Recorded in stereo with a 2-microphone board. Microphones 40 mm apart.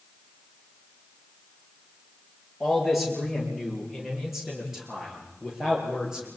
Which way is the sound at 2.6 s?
Centre (ahead or behind).